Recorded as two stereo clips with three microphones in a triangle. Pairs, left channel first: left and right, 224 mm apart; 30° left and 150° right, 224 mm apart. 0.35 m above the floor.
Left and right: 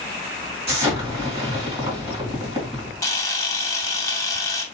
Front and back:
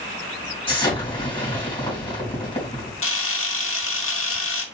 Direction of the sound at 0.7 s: 35° right.